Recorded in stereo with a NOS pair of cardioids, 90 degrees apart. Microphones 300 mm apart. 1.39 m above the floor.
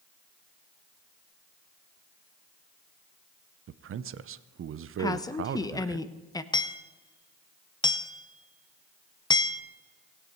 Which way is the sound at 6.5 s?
15° left.